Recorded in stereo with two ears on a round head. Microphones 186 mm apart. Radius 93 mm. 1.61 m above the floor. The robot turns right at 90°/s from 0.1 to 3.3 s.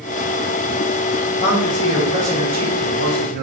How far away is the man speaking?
About 3.5 m.